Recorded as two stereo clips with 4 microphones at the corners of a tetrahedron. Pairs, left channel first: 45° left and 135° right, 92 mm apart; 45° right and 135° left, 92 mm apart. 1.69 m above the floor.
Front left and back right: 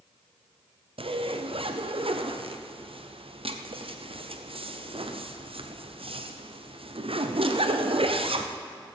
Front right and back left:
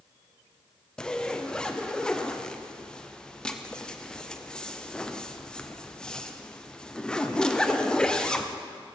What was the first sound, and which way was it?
A zipper, 125° right.